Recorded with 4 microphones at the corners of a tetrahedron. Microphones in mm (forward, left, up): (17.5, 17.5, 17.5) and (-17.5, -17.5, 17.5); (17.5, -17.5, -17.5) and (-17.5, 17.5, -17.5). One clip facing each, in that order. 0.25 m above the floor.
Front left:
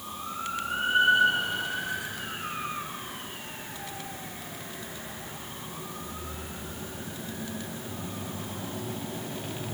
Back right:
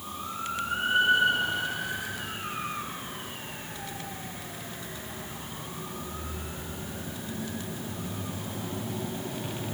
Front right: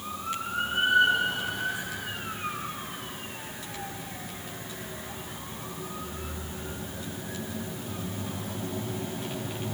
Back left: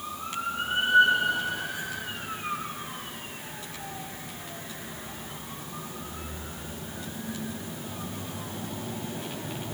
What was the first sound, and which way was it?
Only background noise.